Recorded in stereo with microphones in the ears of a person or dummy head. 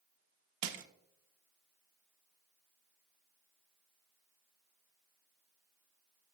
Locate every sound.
0.6 s crushing: 65° right (ahead or behind), 0.8 m